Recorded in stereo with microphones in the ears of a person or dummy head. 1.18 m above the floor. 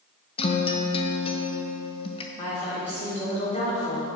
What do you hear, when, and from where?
0.4 s a guitar: 30° left (ahead or behind), 0.8 m
2.4 s a woman speaking: 35° left (ahead or behind), 4 m